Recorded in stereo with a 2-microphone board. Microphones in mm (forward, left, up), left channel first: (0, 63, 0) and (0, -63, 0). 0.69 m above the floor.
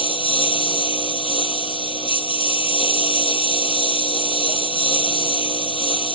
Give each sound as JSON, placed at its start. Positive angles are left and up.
{"t": 0.0, "sound": "a lawn mower", "side_deg": 50}